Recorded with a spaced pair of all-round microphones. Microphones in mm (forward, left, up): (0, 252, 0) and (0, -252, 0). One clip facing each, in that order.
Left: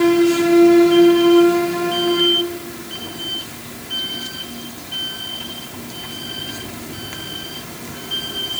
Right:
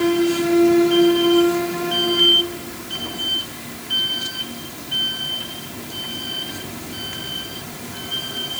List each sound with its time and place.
Only background noise.